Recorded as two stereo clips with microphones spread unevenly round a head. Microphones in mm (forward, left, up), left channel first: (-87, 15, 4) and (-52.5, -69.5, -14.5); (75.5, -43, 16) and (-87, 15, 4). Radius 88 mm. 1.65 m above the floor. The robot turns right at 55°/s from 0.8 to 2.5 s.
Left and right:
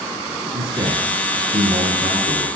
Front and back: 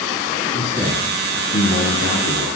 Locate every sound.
0.5 s a man speaking: 90° right, 3 m; by 2.5 s straight ahead, 3 m